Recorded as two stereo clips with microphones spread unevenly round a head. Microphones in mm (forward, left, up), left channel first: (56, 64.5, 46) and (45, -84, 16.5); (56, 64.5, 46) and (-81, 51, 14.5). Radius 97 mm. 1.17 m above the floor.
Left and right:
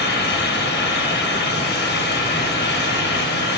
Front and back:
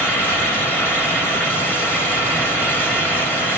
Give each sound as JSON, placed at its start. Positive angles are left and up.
{"t": 0.0, "sound": "a fan", "azimuth_deg": 85, "distance_m": 2.5}